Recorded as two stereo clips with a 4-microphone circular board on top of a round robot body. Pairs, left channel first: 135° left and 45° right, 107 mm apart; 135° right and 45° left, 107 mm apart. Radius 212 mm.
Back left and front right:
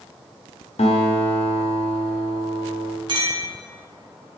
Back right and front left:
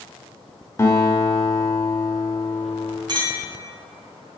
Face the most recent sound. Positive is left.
turn(degrees=0)